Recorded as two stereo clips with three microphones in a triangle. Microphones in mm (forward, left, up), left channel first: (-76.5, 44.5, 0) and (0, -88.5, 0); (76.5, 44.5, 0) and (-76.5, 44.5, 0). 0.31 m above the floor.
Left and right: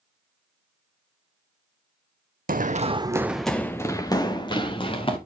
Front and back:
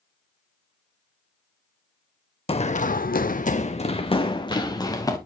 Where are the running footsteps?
45° right, 0.8 m; by 5.2 s 65° left, 2.5 m.